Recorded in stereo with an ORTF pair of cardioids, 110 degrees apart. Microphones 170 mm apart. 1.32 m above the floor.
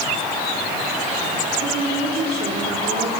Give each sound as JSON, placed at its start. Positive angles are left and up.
{"t": 1.6, "sound": "a woman speaking", "azimuth_deg": -60, "distance_m": 4.0}